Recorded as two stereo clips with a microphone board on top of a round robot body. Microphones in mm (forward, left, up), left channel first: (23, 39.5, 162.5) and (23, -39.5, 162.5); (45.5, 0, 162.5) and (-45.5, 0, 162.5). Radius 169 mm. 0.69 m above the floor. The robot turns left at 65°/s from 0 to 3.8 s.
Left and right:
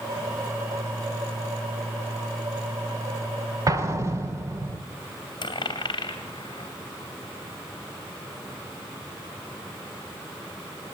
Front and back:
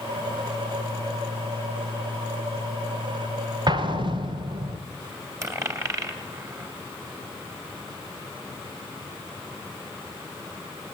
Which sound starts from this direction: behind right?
An explosion, at 3.7 s.